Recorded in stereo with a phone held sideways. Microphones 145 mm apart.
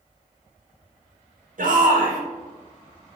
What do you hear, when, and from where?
1.6 s a shout: 65° right (ahead or behind), 1.2 m